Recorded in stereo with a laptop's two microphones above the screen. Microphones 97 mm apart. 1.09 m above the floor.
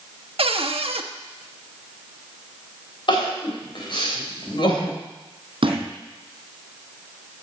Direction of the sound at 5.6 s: 55° right (ahead or behind).